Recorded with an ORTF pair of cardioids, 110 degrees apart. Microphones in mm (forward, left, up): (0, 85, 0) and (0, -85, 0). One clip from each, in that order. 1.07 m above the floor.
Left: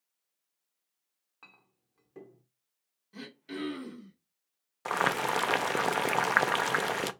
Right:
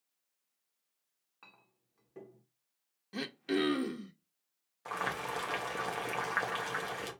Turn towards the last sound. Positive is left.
turn(degrees=50)